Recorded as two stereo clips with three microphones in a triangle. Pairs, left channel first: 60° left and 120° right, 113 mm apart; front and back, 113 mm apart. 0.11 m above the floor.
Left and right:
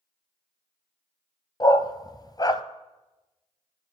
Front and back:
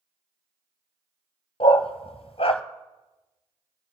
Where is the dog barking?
15° left, 0.8 m.